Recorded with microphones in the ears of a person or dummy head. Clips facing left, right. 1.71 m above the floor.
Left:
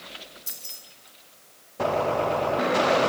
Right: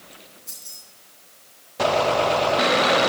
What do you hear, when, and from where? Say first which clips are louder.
0.5 s keys jangling: left 1 dB; 75° left (ahead or behind), 3.5 m